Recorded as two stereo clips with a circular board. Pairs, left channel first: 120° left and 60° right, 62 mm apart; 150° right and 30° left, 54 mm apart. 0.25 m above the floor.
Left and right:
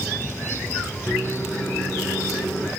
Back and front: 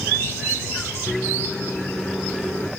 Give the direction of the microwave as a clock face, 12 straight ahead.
7 o'clock.